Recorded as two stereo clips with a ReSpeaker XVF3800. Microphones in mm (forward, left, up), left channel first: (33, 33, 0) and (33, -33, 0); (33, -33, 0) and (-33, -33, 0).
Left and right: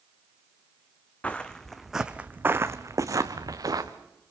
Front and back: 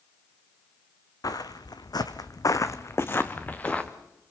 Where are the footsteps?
20° left, 1.8 m; by 3.9 s 75° right, 2.5 m.